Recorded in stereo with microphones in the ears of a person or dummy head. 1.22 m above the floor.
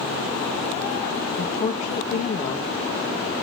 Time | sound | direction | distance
1.4 | a woman speaking | 30° left (ahead or behind) | 1.8 m